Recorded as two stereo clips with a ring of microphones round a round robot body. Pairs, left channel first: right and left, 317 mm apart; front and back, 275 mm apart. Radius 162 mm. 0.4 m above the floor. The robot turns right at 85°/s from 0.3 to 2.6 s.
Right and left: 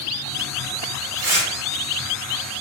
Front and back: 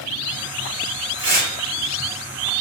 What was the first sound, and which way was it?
Tearing paper, 105° left.